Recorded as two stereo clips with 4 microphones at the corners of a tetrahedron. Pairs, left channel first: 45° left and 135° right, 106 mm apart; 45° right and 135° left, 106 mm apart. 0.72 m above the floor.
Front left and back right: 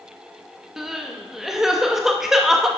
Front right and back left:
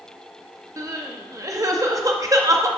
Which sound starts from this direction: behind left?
Crying, at 0.8 s.